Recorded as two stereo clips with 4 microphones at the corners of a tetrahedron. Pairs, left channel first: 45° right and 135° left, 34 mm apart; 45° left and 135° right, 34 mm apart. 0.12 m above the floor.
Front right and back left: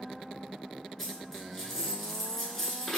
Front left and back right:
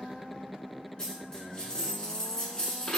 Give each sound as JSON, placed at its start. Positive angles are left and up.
{"t": 1.0, "sound": "a dropped coin", "azimuth_deg": 25, "distance_m": 0.7}